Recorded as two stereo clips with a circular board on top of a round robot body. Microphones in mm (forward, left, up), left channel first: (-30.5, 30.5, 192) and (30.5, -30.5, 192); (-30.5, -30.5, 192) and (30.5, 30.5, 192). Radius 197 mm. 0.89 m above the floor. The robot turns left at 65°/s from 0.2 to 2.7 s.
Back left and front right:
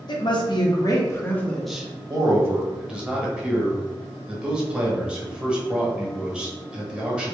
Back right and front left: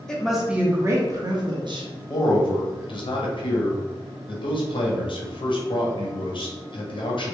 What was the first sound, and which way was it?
A woman speaking, 145° left.